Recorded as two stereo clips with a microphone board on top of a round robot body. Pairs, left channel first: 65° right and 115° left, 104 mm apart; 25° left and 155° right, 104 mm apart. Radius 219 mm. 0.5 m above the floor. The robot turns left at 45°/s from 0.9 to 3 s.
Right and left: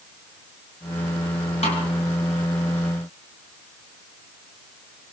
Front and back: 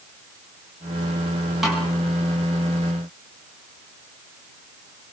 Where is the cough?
I don't hear a cough.